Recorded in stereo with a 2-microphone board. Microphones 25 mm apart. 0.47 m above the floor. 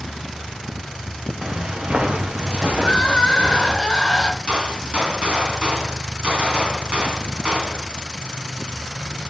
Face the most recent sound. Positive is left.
turn(degrees=-50)  # may be behind; listen again after turning